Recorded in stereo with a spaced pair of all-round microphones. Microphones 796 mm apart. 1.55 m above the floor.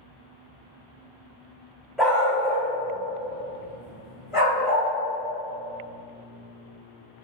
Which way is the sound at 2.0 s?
Centre (ahead or behind).